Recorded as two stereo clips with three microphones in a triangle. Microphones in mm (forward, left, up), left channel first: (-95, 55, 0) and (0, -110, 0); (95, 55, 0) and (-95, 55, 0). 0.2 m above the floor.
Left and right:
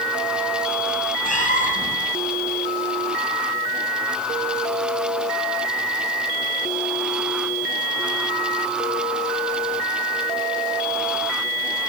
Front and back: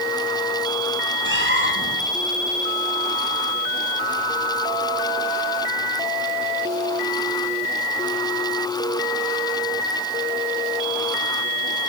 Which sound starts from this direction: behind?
A cat meowing, at 1.2 s.